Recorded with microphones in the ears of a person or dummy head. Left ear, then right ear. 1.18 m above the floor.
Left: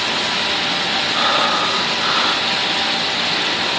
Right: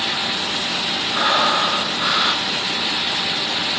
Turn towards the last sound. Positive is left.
turn(degrees=-5)  # may be behind; listen again after turning